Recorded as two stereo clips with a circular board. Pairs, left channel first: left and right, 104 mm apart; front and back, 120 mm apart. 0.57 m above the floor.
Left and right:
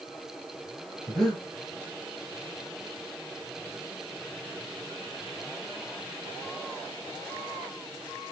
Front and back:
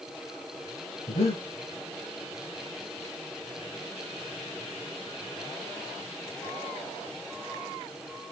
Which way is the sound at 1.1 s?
5° left.